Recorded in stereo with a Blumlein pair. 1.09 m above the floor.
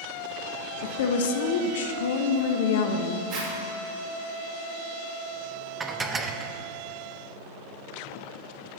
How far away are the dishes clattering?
About 0.5 m.